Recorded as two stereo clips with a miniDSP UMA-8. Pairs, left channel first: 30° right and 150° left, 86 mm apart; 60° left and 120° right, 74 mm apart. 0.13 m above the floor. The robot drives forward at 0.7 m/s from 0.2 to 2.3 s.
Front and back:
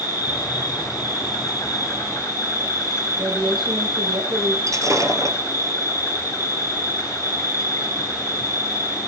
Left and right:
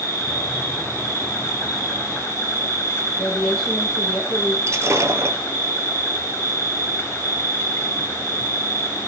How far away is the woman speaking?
About 5 m.